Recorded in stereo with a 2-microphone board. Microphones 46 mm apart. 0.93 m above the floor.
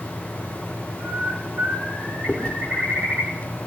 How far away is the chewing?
About 1.2 m.